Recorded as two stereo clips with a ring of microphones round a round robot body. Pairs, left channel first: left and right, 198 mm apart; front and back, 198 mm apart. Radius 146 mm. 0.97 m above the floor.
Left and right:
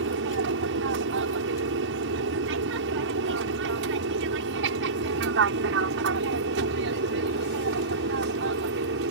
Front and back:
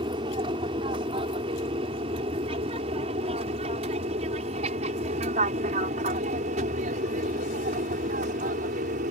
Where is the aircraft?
110° right; by 9.1 s 125° right.